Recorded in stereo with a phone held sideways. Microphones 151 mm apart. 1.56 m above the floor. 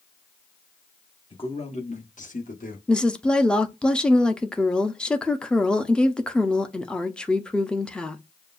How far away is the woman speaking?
About 0.6 m.